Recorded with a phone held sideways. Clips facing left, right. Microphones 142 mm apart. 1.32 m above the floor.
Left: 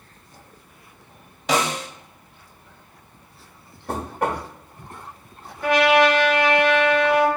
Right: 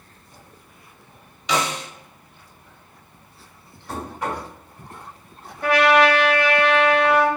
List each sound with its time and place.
1.5 s a snare drum: 50° left (ahead or behind), 0.8 m
3.9 s knocking: 55° left (ahead or behind), 1.0 m
5.6 s a trumpet: 55° right (ahead or behind), 1.6 m